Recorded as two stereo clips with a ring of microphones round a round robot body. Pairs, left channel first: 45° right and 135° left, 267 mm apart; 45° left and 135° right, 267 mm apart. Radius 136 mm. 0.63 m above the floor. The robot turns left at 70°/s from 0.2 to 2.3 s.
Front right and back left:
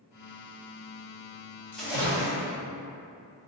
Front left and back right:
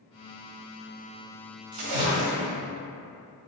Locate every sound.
1.7 s a splash: 130° right, 1.1 m; by 2.5 s 170° right, 1.1 m